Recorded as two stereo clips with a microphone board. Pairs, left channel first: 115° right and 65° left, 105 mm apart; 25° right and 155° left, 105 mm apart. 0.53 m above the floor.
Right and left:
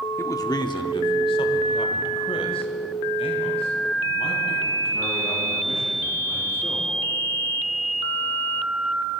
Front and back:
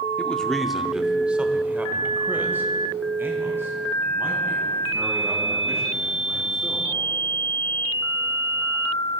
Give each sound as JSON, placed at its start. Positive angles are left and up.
{"t": 0.2, "sound": "a man speaking", "azimuth_deg": -85, "distance_m": 0.8}